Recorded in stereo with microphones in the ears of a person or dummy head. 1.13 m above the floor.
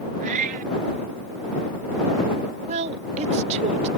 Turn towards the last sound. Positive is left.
turn(degrees=-40)  # may be behind; listen again after turning